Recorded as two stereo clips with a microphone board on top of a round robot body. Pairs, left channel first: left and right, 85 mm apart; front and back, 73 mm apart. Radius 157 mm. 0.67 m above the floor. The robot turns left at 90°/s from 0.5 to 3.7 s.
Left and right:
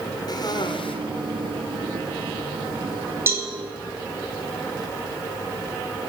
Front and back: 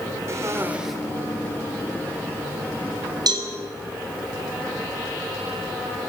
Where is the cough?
130° left, 2.5 m; by 0.9 s 90° left, 2.5 m.